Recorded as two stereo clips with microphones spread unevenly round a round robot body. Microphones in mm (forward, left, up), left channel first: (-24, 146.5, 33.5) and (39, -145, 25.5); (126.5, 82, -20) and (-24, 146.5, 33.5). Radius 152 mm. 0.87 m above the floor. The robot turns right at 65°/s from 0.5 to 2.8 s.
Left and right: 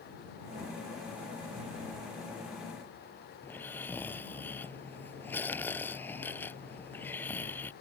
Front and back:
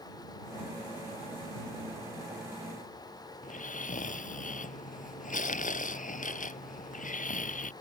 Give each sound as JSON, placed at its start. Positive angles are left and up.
{"t": 3.4, "sound": "snoring", "azimuth_deg": 20}